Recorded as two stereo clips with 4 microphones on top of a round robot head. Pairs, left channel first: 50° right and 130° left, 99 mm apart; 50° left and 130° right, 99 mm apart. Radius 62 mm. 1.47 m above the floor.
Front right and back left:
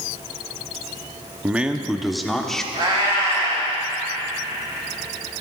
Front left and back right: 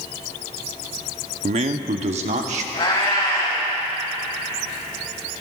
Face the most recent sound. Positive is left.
turn(degrees=90)